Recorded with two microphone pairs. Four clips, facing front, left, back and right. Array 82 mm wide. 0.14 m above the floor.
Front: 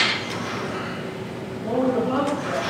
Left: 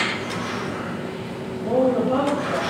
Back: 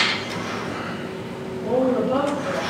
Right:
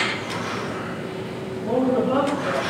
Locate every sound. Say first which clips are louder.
1.6 s a woman speaking: left 1 dB, back 2 dB; 55° right, 1.4 m